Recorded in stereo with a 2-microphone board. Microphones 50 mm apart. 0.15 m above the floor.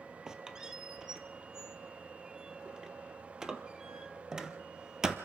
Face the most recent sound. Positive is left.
turn(degrees=-15)  # may be behind; listen again after turning